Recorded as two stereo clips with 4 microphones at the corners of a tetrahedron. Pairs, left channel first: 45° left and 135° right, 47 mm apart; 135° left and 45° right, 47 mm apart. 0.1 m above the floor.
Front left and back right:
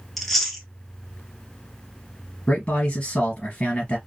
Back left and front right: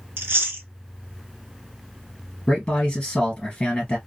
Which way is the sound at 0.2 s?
40° right.